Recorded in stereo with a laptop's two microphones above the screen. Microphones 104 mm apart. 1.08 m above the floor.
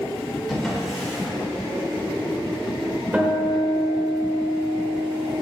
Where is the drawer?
Centre (ahead or behind), 2 m.